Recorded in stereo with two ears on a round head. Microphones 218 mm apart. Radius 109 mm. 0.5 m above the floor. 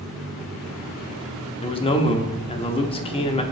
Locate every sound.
1.6 s a man speaking: 25° left (ahead or behind), 0.7 m